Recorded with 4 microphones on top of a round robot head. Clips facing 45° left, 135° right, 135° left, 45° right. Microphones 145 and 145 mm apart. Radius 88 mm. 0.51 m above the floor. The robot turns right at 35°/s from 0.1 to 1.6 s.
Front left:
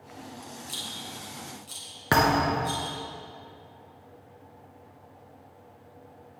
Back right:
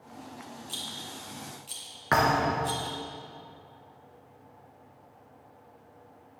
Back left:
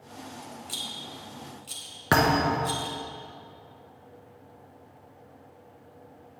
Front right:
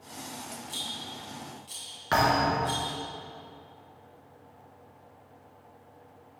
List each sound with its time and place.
0.7 s a rattle: 120° left, 3.5 m; by 3.0 s 155° left, 3.5 m
2.1 s a thud: 105° left, 1.4 m